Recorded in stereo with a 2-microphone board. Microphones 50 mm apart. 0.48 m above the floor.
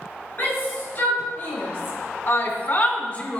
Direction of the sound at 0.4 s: 40° left (ahead or behind).